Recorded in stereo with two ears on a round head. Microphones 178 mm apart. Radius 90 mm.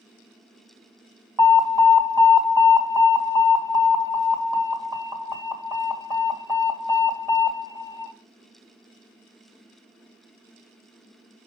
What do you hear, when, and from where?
1.4 s an alarm: 15° right (ahead or behind), 2 m